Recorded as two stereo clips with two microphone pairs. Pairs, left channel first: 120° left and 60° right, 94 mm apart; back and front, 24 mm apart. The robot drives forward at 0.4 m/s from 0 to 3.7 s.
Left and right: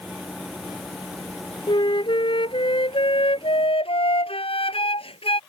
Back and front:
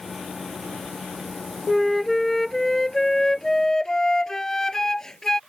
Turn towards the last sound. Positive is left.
turn(degrees=110)